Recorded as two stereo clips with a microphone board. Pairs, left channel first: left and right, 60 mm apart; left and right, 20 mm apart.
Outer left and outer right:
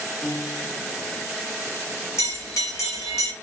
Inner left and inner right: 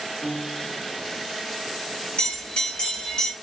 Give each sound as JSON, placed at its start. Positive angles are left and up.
{"t": 0.2, "sound": "a piano", "side_deg": 30, "distance_m": 1.5}
{"t": 2.2, "sound": "a bell", "side_deg": 55, "distance_m": 1.6}